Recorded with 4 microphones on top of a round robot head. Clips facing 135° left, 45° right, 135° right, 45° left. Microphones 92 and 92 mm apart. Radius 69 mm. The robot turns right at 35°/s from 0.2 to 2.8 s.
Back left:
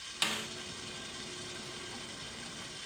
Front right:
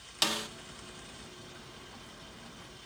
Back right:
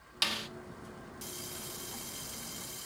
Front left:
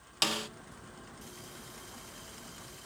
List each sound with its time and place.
0.2 s a snare drum: 10° left, 0.5 m; by 0.5 s 15° left, 0.5 m